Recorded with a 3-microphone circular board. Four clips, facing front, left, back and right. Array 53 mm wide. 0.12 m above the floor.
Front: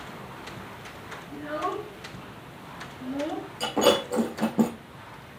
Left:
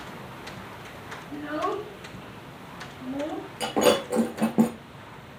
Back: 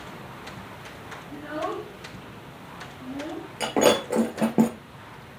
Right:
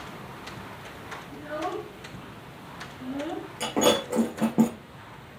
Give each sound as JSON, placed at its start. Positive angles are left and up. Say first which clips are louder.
{"t": 1.3, "sound": "a child speaking", "louder": "left 4 dB, even", "azimuth_deg": 110, "distance_m": 1.1}
{"t": 3.6, "sound": "breaking glass", "louder": "left 2 dB, back 2 dB", "azimuth_deg": 170, "distance_m": 3.5}